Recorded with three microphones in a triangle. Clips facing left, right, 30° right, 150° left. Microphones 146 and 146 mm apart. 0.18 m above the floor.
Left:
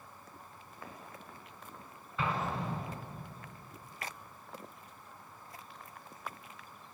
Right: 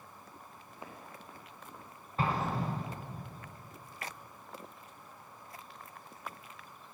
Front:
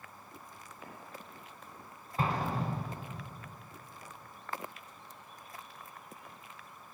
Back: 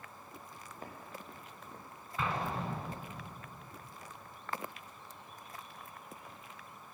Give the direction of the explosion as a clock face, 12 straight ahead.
2 o'clock.